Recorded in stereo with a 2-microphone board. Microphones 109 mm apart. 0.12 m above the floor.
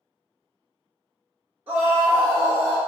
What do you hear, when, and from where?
1.7 s a scream: 15° right (ahead or behind), 1.8 m; by 2.8 s 35° right (ahead or behind), 1.6 m